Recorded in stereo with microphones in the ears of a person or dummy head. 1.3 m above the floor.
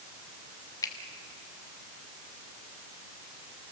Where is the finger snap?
15° left (ahead or behind), 1.3 m.